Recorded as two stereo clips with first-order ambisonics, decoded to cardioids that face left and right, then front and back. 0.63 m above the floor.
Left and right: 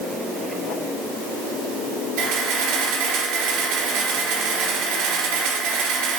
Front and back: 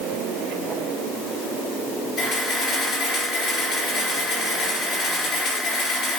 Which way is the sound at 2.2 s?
70° right.